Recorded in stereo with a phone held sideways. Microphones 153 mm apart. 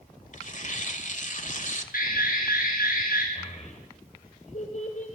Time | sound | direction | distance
0.3 | tearing paper | 55° left (ahead or behind) | 2 m
1.9 | an alarm | 65° left (ahead or behind) | 9.5 m
3.4 | a child speaking | 50° left (ahead or behind) | 3 m